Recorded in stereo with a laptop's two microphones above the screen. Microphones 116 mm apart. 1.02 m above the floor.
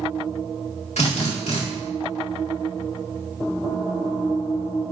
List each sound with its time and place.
1.0 s a drill: 75° left (ahead or behind), 1.8 m